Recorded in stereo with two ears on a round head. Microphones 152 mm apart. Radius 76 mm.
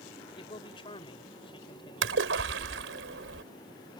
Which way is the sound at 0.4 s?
30° left (ahead or behind).